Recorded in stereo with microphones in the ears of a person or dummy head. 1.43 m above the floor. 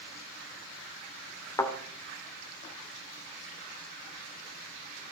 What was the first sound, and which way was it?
A thud, 20° left (ahead or behind).